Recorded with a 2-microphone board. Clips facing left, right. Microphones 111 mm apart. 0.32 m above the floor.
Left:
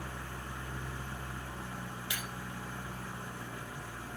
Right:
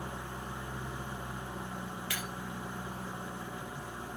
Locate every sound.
0.0 s an engine running: 20° right (ahead or behind), 0.9 m
2.1 s breaking glass: 20° left (ahead or behind), 4 m